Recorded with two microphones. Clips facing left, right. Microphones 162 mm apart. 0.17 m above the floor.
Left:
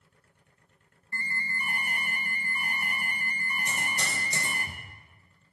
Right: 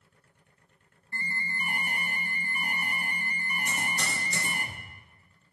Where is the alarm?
20° right (ahead or behind), 0.8 m.